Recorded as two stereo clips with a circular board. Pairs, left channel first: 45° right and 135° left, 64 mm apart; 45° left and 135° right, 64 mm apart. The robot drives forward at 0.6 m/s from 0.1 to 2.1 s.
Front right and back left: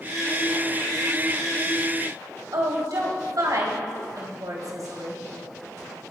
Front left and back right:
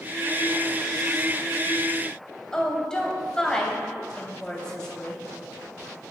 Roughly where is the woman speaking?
Behind left.